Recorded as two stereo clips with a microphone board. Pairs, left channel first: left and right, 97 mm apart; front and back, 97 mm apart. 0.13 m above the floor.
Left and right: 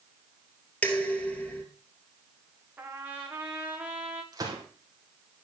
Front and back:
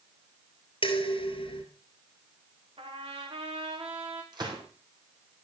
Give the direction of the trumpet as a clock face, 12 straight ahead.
5 o'clock.